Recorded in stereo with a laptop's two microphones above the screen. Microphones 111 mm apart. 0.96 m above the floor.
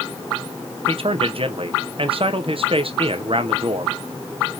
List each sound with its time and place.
0.9 s a man speaking: 55° right (ahead or behind), 0.8 m